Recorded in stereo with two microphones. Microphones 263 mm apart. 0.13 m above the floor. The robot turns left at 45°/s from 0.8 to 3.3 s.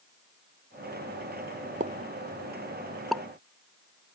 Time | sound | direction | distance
1.8 | a pop | 30° right (ahead or behind) | ?